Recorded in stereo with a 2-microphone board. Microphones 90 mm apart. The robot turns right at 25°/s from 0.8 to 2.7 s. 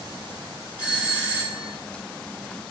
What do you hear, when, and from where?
0.8 s a doorbell: 15° right (ahead or behind), 1.5 m; by 1.8 s 20° right (ahead or behind), 1.5 m